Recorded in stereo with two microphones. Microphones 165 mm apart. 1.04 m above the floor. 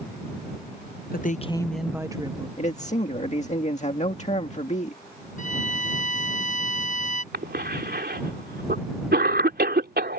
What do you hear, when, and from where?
1.1 s a woman speaking: 65° left (ahead or behind); by 2.5 s 30° right (ahead or behind)
2.6 s a man speaking: 45° left (ahead or behind)
5.4 s a violin: 50° left (ahead or behind)
7.3 s a cough: 80° right